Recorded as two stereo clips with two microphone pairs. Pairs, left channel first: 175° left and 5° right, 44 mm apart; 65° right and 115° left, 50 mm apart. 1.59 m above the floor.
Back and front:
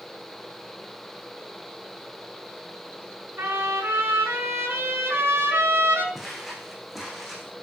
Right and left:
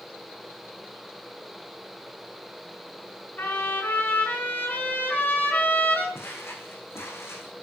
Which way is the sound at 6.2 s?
85° right.